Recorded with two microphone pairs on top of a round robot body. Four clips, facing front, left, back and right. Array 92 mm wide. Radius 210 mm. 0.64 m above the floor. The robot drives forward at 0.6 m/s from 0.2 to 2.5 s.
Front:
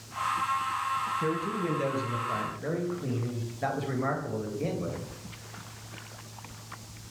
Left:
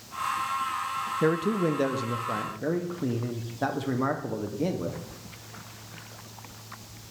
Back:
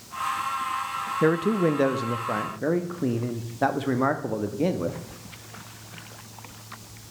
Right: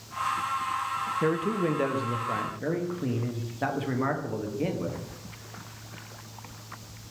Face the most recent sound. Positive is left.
turn(degrees=175)